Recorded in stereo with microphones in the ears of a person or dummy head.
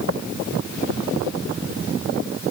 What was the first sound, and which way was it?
Only background noise.